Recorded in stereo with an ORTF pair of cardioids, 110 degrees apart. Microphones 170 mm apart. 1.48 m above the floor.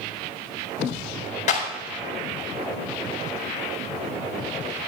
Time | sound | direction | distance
1.5 | a clap | 45° left | 4 m